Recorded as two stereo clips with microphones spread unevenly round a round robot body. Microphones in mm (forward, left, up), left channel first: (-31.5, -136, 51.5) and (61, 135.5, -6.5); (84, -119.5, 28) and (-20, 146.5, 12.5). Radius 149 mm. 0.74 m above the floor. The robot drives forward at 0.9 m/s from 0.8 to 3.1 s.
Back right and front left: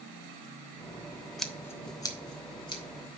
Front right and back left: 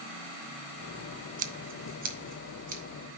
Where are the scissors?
145° left, 0.6 m; by 2.8 s 175° left, 1.6 m.